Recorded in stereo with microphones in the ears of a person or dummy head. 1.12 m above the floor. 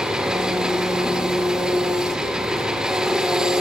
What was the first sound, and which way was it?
An engine running, 5° right (ahead or behind).